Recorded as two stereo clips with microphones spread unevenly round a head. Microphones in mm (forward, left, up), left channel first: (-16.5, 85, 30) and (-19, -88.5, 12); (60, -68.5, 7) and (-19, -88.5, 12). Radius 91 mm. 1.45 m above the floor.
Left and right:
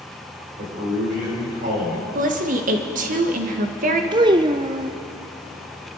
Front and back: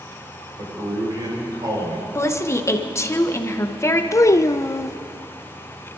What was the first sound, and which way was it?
A man speaking, 130° right.